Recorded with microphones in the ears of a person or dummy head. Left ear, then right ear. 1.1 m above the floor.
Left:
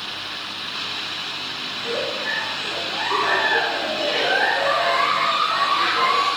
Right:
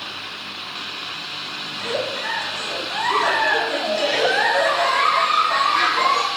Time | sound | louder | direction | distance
1.7 | a giggle | right 1 dB | 65° right (ahead or behind) | 1.1 m